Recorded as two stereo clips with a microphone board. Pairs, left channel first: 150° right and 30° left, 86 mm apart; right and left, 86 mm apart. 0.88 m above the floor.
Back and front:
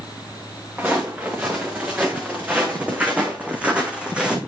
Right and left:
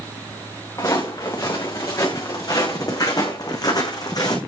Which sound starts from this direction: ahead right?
Footsteps, at 0.8 s.